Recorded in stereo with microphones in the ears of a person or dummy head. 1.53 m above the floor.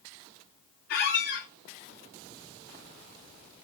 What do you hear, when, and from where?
0.9 s a squeak: 50° left (ahead or behind), 0.6 m